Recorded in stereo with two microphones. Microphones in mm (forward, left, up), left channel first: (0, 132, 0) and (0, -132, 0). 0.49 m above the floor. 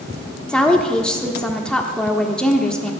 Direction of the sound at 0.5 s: 5° left (ahead or behind).